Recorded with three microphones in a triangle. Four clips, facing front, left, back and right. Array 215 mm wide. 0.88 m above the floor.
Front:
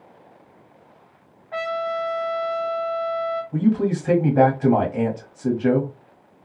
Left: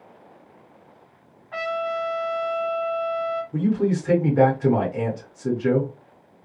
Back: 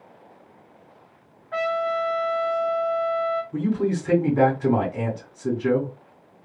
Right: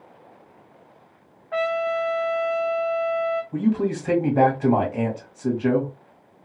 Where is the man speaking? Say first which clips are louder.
Left 3 dB, front 3 dB; 40° right, 1.6 m.